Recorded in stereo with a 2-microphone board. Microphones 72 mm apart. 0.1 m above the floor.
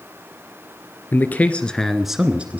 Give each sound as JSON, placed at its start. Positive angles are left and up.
{"t": 1.1, "sound": "a man speaking", "side_deg": 25, "distance_m": 2.0}